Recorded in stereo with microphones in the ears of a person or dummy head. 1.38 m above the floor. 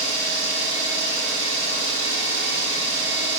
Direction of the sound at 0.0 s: 40° left (ahead or behind).